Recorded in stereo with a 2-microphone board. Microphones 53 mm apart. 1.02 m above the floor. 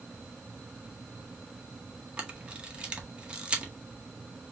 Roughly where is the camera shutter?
Right.